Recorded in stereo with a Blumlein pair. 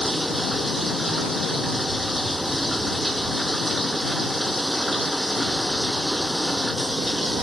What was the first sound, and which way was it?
Running water, straight ahead.